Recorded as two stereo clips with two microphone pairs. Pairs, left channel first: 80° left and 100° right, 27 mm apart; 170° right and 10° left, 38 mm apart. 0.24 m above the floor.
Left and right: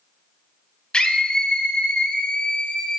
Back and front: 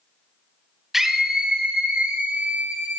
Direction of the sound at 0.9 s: 85° left.